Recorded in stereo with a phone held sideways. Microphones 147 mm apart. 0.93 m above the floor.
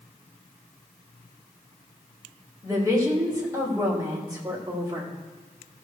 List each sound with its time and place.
2.6 s a woman speaking: 25° right (ahead or behind), 3.5 m